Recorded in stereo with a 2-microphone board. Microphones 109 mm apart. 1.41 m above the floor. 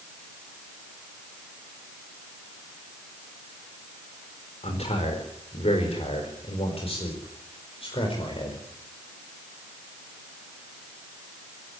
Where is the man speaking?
85° left, 4.5 m; by 8.6 s 55° left (ahead or behind), 5 m.